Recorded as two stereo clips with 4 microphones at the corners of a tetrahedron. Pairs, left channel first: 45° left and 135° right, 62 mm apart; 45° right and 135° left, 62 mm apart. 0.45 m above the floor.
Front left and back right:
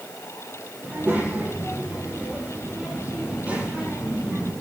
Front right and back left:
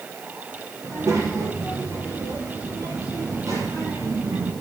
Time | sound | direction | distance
0.8 | a child speaking | 165° left | 9 m